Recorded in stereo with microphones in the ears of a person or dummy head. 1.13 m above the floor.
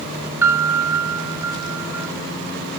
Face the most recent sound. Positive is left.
turn(degrees=-15)  # may be behind; listen again after turning